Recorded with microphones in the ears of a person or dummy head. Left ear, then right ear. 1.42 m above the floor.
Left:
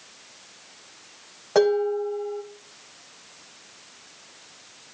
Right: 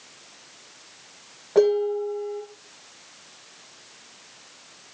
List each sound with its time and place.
1.6 s dishes clattering: 65° left (ahead or behind), 5 m